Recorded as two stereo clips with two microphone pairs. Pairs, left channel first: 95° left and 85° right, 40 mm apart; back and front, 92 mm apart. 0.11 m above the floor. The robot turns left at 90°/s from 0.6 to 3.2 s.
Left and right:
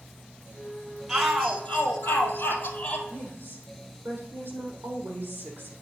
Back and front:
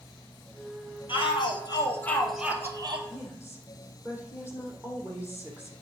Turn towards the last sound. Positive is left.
turn(degrees=-70)